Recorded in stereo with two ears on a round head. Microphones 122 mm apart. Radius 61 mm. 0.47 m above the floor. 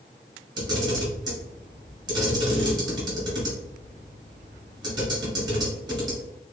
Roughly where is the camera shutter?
Right.